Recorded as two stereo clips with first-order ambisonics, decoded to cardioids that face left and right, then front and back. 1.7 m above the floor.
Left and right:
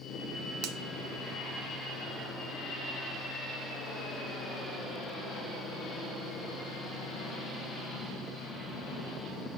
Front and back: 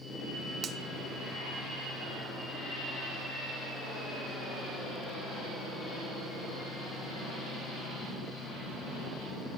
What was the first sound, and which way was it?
A finger snap, 120° right.